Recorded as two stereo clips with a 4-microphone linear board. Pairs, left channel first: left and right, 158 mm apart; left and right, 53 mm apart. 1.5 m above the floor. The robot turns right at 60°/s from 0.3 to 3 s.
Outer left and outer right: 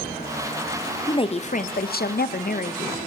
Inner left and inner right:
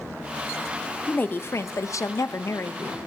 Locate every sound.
1.1 s a woman speaking: 25° left, 0.6 m; by 3.0 s 140° left, 0.6 m